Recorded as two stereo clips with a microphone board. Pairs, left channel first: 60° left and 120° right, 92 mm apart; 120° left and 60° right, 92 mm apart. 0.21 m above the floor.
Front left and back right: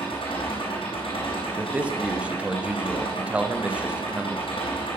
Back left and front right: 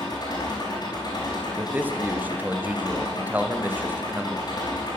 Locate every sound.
0.0 s an engine running: 75° left, 6 m
1.6 s a man speaking: 75° right, 1.0 m